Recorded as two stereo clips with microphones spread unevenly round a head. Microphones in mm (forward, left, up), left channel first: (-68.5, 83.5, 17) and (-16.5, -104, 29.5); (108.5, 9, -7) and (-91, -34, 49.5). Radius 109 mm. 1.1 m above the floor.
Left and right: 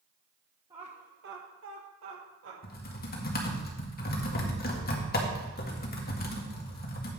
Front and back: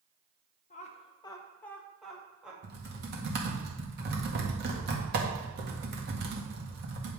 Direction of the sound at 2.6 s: 145° left.